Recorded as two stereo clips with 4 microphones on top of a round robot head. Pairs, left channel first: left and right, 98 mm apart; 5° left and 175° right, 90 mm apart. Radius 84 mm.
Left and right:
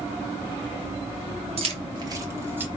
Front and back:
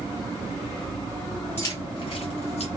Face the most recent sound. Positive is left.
turn(degrees=-20)